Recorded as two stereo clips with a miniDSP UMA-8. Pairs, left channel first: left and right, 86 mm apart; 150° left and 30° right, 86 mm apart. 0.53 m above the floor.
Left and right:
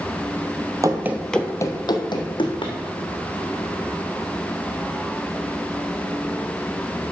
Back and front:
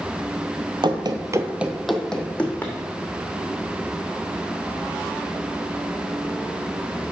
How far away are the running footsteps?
About 1.0 m.